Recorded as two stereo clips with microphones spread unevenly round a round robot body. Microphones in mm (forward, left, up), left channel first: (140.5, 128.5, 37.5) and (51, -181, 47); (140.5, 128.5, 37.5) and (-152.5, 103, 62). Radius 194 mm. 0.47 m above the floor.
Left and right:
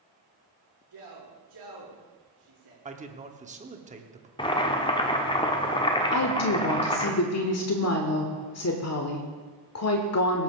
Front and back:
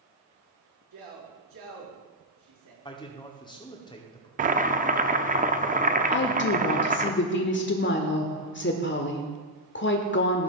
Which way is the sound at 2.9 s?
50° right.